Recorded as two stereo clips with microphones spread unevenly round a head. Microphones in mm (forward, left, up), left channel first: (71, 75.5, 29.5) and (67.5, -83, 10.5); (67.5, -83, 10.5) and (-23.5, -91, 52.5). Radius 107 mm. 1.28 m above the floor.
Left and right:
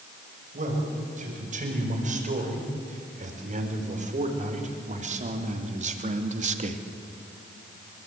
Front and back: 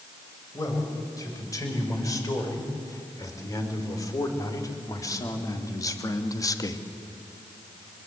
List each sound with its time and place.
0.5 s a man speaking: 50° right, 6 m